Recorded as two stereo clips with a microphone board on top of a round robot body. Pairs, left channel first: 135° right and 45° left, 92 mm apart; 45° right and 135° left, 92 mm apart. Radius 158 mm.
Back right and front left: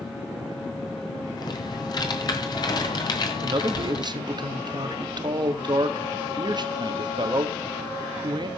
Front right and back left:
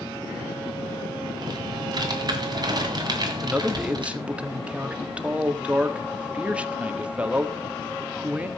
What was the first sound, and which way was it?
Typing on a keyboard, straight behind.